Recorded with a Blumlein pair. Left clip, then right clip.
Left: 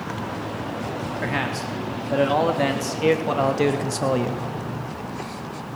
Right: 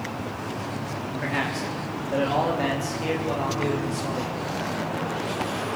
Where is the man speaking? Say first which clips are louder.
Left 1 dB; 10° left, 4 m; by 4.4 s 45° left, 2.0 m.